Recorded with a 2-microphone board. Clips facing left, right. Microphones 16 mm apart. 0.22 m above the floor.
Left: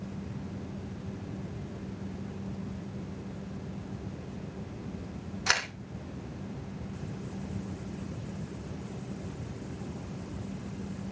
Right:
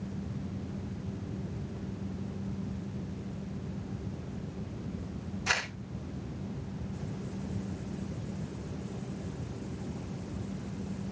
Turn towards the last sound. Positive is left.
turn(degrees=85)